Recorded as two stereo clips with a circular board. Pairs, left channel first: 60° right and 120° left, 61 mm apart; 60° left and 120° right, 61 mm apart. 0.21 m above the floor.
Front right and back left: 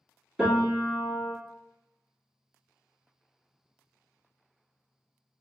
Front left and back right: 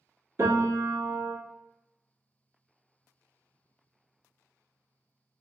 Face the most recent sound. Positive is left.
turn(degrees=-160)